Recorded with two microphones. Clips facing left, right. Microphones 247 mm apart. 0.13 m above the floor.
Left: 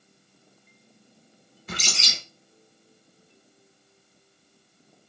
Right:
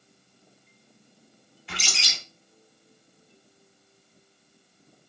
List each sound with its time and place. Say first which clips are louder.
1.7 s a bird: left 4 dB; 45° left (ahead or behind), 1.2 m